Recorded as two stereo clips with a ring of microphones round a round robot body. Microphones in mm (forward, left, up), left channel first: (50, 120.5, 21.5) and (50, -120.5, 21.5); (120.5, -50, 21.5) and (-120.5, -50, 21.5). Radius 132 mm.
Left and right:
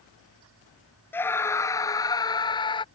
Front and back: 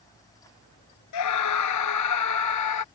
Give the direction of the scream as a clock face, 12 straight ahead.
12 o'clock.